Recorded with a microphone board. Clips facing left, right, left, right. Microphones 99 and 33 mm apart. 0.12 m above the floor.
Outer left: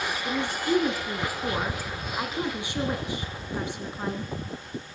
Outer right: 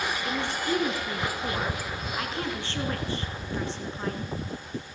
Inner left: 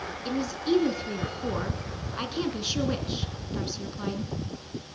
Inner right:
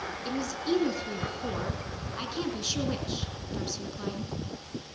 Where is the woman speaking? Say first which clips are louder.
Outer left 4 dB, inner left 3 dB; 15° left (ahead or behind), 1.7 m.